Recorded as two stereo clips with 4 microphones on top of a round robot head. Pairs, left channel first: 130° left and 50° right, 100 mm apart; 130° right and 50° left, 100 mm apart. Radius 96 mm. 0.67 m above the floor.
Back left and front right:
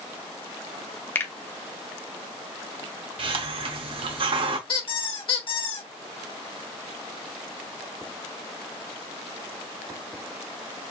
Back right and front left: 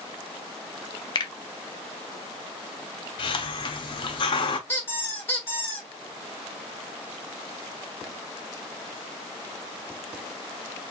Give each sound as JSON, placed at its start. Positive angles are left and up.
{"t": 1.1, "sound": "a finger snap", "azimuth_deg": -170, "distance_m": 1.0}
{"t": 3.2, "sound": "a hiss", "azimuth_deg": -85, "distance_m": 0.8}
{"t": 4.7, "sound": "a squeak", "azimuth_deg": 165, "distance_m": 1.6}